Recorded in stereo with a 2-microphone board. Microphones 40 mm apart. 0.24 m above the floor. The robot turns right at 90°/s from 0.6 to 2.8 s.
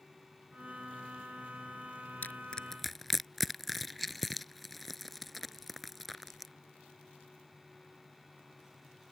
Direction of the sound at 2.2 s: 50° left (ahead or behind).